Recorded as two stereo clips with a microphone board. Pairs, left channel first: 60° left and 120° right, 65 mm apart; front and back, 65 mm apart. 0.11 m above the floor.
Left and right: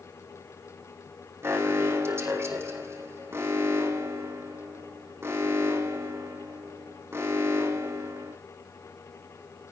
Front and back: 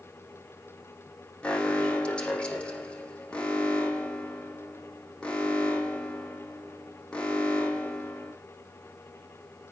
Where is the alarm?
70° right, 5.5 m.